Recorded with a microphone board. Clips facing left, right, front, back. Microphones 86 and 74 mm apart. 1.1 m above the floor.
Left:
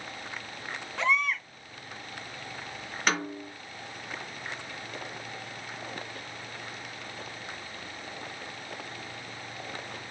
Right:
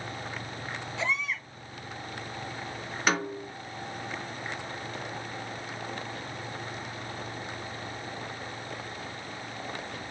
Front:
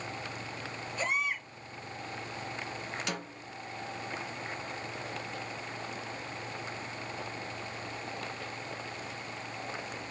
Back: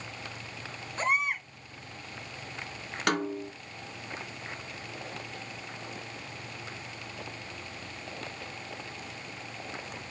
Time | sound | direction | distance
1.0 | a baby crying | 130° left | 4.5 m
3.1 | a snare drum | 175° right | 1.8 m